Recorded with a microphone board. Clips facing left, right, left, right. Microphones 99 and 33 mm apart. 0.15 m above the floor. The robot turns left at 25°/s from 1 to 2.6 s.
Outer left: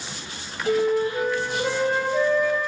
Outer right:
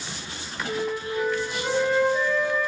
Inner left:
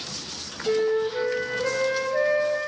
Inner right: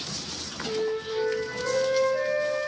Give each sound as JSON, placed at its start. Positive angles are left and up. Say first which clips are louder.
{"t": 0.7, "sound": "a flute", "louder": "outer left 8 dB, inner left 6 dB", "azimuth_deg": 95, "distance_m": 2.5}